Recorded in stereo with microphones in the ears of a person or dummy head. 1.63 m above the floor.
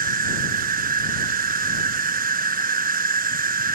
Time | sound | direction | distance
0.0 | an insect | 40° right (ahead or behind) | ?